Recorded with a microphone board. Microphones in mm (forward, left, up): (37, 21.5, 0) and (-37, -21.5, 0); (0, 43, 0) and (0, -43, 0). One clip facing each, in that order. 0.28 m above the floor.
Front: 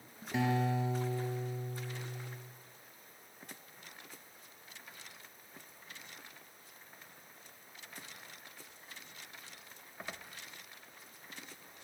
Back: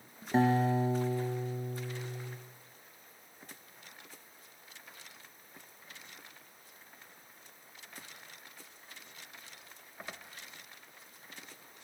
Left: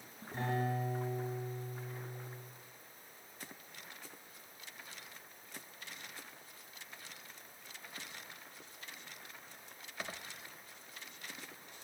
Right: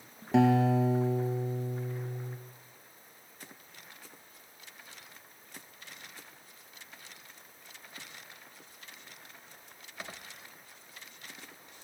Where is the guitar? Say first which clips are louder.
Back 5 dB, right 13 dB; 95° right, 2 m.